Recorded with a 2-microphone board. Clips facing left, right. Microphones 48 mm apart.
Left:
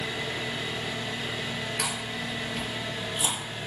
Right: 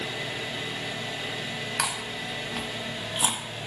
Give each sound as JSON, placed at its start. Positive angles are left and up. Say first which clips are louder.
{"t": 0.0, "sound": "an engine running", "louder": "left 1 dB", "side_deg": 5, "distance_m": 1.6}
{"t": 1.8, "sound": "chewing", "louder": "right 1 dB", "side_deg": -65, "distance_m": 0.7}